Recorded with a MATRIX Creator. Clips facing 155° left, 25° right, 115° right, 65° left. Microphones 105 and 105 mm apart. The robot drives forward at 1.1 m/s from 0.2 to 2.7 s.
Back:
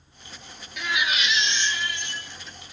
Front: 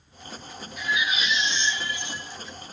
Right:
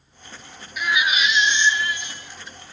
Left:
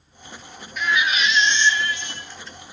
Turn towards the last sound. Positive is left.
turn(degrees=175)